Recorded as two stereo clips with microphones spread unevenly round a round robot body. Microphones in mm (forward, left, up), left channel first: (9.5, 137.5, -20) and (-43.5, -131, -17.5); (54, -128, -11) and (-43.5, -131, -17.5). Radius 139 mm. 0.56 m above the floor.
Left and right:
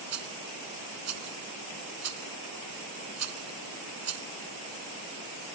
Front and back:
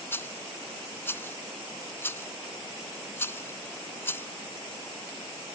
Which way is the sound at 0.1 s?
65° right.